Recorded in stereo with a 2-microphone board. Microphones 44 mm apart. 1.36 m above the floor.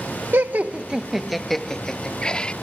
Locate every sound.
0.3 s laughter: 55° right (ahead or behind); by 2.5 s 20° left (ahead or behind)